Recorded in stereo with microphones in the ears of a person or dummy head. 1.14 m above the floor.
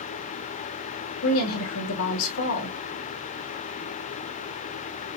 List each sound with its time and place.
1.2 s a woman speaking: 65° left (ahead or behind), 1.2 m